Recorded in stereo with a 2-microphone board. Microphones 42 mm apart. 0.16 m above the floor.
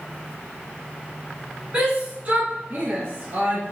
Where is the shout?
30° right (ahead or behind), 1.5 m; by 3.7 s 55° right (ahead or behind), 2 m.